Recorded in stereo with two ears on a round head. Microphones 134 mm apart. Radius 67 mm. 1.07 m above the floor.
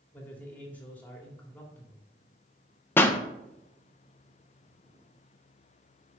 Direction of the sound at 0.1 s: 10° left (ahead or behind).